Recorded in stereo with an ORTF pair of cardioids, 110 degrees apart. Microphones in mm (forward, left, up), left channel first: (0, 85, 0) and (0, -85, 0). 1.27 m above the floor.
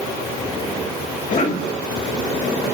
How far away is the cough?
About 5.5 m.